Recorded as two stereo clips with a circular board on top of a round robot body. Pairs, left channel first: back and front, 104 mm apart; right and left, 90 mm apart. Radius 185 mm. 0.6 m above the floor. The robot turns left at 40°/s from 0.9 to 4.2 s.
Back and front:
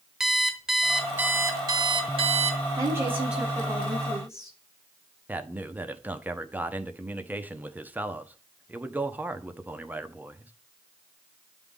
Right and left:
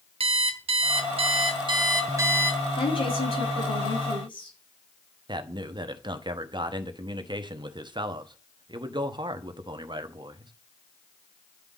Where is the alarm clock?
85° left, 0.9 m; by 2.6 s 15° left, 0.9 m.